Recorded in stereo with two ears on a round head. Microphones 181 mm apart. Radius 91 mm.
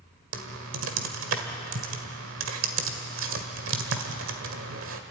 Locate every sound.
0.3 s typing on a keyboard: 70° right (ahead or behind), 1.8 m